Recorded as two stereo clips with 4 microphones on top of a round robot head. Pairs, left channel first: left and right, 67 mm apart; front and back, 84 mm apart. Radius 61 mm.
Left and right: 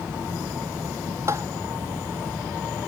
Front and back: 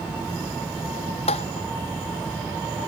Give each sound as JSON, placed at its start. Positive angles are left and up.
{"t": 1.3, "sound": "tapping", "azimuth_deg": -25}